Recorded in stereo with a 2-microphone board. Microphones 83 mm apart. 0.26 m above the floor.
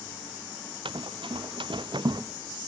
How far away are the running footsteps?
About 1.2 m.